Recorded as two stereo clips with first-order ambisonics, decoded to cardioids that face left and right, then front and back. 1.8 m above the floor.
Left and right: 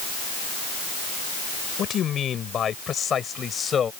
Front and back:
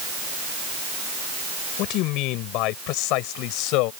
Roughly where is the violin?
No violin in this recording.